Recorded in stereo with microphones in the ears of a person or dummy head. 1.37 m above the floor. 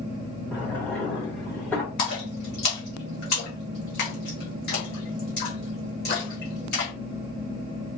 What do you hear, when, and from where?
0.5 s a drawer: 10° left (ahead or behind), 0.8 m
2.0 s a splash: 45° left (ahead or behind), 1.0 m